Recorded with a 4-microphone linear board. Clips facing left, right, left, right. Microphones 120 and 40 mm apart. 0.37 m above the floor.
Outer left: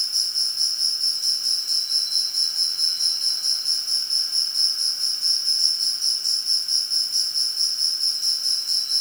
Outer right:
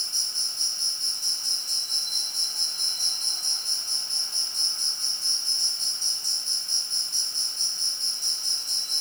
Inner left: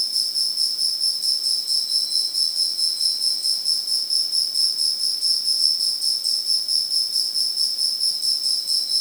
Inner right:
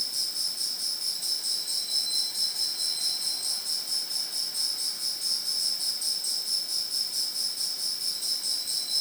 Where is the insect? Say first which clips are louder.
Outer left 2 dB, inner left 7 dB; 45° right (ahead or behind), 1.1 m.